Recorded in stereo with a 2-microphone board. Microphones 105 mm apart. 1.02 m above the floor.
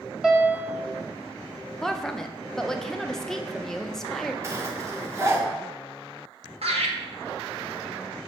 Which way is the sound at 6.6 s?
75° right (ahead or behind).